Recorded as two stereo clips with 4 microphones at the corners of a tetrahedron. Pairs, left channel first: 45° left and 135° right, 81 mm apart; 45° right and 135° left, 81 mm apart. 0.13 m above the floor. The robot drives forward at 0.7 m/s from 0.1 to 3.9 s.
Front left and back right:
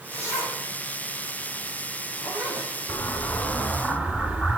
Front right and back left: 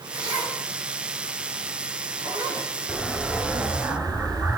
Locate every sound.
0.1 s a zipper: 95° left, 5.5 m; by 2.7 s 115° left, 6 m
2.9 s an explosion: 60° left, 1.2 m; by 4.6 s 120° left, 1.2 m